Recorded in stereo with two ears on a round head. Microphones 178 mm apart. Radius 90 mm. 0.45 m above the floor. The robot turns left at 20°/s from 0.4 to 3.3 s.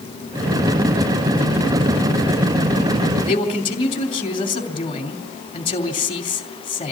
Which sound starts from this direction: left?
A man speaking, at 3.3 s.